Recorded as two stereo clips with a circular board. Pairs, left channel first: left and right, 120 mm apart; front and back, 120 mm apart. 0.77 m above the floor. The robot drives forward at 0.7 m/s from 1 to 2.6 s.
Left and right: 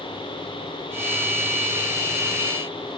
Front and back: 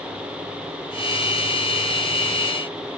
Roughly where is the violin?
I don't hear a violin.